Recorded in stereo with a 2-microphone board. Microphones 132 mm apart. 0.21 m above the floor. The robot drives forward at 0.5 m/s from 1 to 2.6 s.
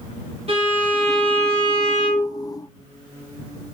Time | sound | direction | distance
0.5 | a violin | 45° right (ahead or behind) | 1.5 m